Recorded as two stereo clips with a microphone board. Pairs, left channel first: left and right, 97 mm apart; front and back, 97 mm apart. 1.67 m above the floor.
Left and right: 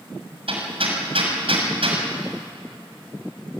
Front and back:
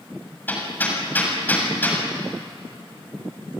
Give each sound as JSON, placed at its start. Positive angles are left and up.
{"t": 0.5, "sound": "hammering", "azimuth_deg": -70, "distance_m": 6.5}